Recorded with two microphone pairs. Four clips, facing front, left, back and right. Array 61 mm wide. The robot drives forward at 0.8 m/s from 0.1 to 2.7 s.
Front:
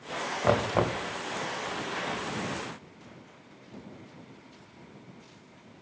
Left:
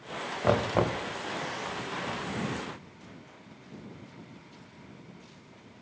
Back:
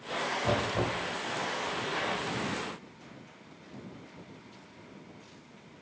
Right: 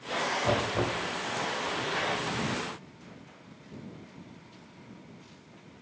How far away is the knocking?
About 1.1 m.